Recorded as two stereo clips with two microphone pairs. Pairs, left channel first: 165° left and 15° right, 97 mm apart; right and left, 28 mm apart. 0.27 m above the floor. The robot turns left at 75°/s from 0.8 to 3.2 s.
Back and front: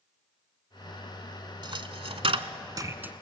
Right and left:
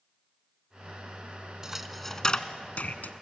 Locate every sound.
1.6 s a dropped coin: 20° left, 0.8 m; by 3.1 s 95° right, 0.8 m